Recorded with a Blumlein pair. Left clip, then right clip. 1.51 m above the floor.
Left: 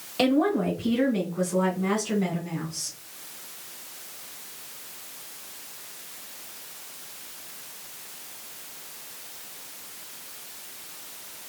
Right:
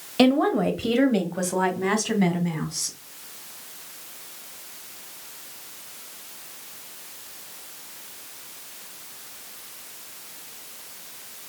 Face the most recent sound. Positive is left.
turn(degrees=-65)